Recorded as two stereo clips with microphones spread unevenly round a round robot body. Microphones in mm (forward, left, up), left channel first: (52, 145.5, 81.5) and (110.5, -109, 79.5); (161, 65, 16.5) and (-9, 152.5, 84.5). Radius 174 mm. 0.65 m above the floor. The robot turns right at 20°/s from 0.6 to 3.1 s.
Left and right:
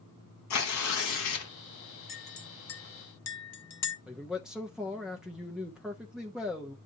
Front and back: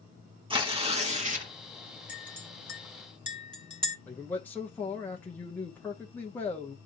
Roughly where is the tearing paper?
Left.